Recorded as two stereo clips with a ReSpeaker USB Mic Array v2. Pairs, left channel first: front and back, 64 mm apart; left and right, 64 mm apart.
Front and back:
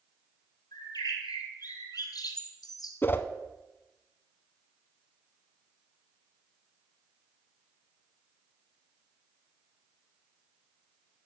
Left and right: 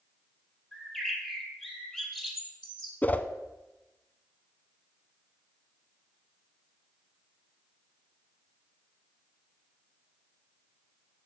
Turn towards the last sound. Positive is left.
turn(degrees=40)